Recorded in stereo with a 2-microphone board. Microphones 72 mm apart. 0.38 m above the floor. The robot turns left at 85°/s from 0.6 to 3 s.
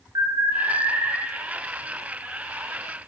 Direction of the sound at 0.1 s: 110° right.